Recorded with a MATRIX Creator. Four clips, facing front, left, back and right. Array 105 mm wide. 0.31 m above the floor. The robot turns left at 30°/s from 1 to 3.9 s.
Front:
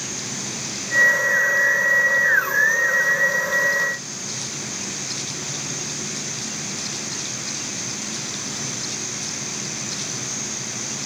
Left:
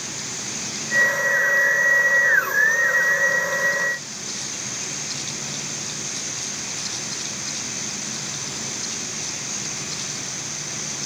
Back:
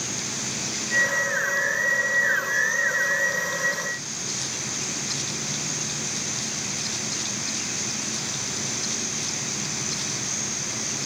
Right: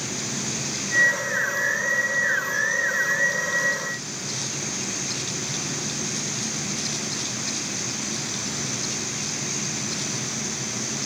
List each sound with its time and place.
Only background noise.